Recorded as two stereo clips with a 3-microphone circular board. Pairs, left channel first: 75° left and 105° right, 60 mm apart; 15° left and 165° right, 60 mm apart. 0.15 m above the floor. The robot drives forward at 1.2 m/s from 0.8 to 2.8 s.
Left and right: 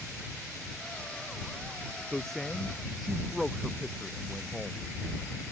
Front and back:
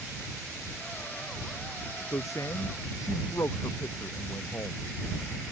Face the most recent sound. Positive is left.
turn(degrees=-10)